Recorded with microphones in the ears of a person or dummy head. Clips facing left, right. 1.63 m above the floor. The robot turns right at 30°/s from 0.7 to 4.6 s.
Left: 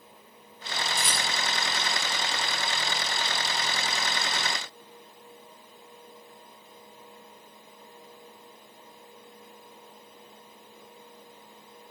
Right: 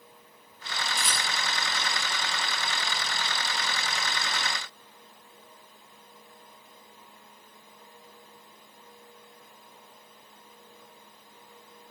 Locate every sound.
1.0 s a rattle: 85° left, 7 m; by 1.3 s 75° left (ahead or behind), 7 m